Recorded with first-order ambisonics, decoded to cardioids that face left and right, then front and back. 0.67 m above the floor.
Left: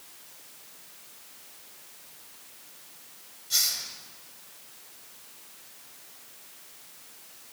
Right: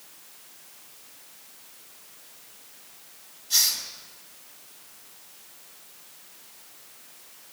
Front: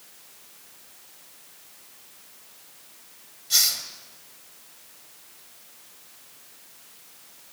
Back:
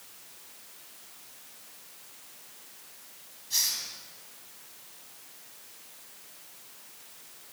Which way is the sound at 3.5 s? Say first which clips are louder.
Right 4 dB, front 7 dB; 5° left.